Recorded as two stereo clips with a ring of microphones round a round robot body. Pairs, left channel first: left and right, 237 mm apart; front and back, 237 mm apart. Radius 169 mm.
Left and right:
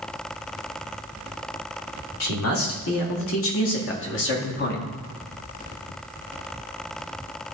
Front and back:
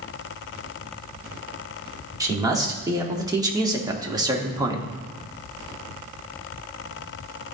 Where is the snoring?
I don't hear snoring.